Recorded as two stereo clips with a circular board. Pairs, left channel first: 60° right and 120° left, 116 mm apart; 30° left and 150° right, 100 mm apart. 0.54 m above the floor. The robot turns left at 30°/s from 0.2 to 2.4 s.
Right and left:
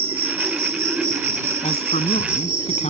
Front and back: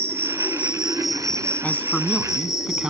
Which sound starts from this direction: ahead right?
A man speaking, at 1.6 s.